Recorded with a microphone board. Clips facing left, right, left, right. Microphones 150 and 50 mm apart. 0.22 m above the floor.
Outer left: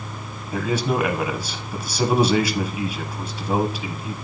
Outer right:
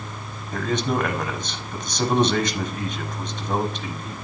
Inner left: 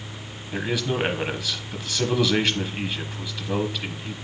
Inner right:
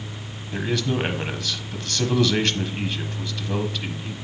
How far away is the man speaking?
About 1.0 m.